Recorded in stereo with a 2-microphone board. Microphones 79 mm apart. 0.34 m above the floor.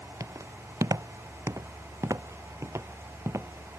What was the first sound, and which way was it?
Footsteps, 40° right (ahead or behind).